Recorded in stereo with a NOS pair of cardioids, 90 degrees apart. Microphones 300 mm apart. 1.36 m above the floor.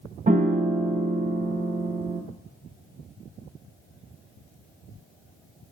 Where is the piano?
25° right, 0.8 m.